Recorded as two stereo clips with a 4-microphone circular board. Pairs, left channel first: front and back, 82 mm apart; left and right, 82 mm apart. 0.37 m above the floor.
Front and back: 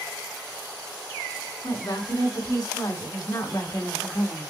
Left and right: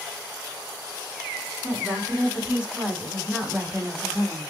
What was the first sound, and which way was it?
A woman speaking, 10° right.